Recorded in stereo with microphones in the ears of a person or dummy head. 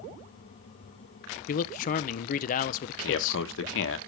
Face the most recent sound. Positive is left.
turn(degrees=75)  # may be behind; listen again after turning